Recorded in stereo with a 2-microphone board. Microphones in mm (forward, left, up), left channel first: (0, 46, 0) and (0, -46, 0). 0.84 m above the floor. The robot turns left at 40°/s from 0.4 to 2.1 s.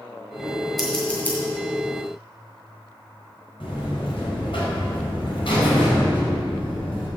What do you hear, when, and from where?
0.8 s scissors: centre (ahead or behind), 3 m; by 1.4 s 25° left (ahead or behind), 3 m
3.6 s a buzzer: 70° left (ahead or behind), 4.5 m